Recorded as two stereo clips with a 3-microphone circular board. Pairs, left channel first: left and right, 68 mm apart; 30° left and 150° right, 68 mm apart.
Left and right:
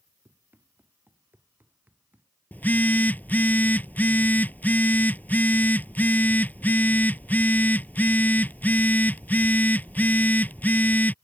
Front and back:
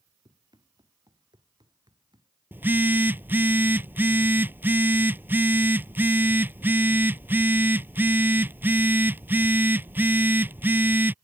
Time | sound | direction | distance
0.2 | running footsteps | 150° right | ?
2.5 | a phone buzzing | 150° left | ?